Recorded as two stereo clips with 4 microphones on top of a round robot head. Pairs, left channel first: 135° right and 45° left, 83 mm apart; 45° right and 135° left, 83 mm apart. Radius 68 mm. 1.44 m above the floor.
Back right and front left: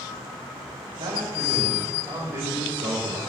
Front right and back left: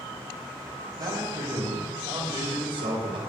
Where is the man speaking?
95° left, 5.5 m; by 3.2 s 115° left, 5 m.